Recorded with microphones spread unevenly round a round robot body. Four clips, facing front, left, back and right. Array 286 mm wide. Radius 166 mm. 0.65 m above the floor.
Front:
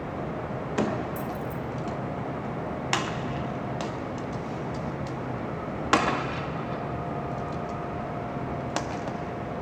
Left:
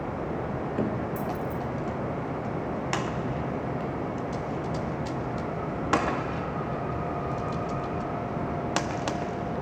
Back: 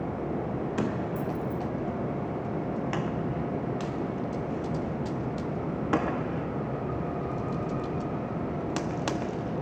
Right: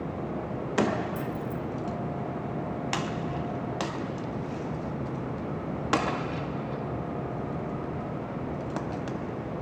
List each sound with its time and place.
1.2 s keys jangling: 10° left, 3 m